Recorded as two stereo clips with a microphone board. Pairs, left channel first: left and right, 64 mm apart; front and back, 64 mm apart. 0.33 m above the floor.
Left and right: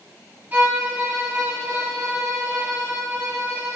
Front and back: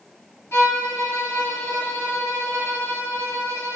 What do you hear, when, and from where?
0.5 s a violin: 35° right, 1.8 m